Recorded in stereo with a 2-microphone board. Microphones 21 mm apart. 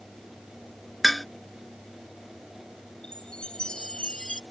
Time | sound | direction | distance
1.0 | dishes clattering | 5° left (ahead or behind) | ?
3.0 | a chime | 50° left (ahead or behind) | ?